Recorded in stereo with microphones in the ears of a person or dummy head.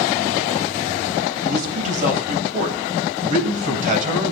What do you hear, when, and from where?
1.4 s a man speaking: 50° right (ahead or behind), 10 m